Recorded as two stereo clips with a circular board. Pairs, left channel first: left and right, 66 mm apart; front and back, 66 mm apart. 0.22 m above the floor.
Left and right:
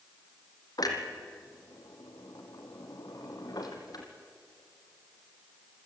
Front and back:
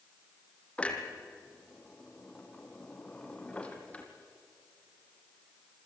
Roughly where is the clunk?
Left.